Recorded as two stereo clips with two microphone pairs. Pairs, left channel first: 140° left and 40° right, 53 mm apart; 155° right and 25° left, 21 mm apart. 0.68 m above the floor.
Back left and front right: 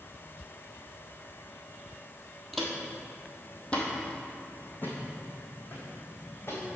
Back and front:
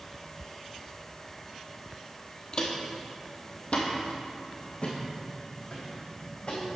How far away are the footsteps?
About 1.2 m.